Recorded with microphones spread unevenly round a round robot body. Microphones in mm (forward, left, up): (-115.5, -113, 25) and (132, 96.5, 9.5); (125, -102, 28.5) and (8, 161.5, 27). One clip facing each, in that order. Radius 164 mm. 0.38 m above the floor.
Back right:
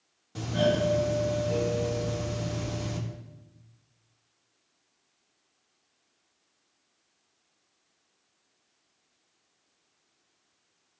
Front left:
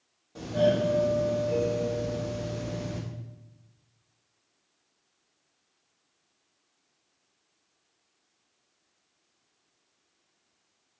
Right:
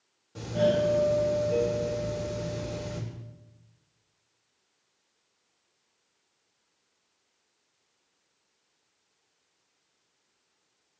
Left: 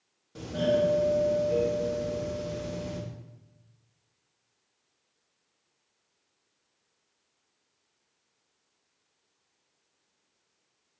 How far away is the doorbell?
About 1.9 m.